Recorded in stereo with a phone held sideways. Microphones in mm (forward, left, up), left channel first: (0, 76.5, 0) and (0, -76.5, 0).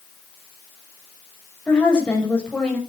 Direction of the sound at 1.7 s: 5° left (ahead or behind).